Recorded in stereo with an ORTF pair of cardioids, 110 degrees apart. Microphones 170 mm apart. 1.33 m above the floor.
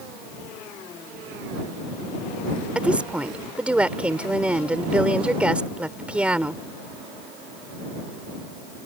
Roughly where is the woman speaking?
Ahead.